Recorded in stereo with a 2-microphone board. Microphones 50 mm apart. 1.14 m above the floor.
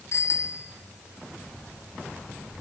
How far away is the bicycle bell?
About 3 m.